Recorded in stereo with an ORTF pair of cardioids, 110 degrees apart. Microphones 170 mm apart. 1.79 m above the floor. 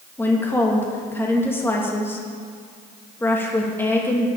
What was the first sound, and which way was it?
A woman speaking, 15° left.